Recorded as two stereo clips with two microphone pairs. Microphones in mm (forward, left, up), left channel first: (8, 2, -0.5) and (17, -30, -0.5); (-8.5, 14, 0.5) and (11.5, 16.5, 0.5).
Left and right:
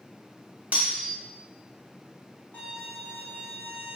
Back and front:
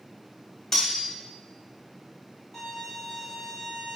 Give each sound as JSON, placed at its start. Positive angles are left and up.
{"t": 0.7, "sound": "cutlery clinking", "azimuth_deg": -110, "distance_m": 0.9}
{"t": 2.5, "sound": "a violin", "azimuth_deg": 120, "distance_m": 1.4}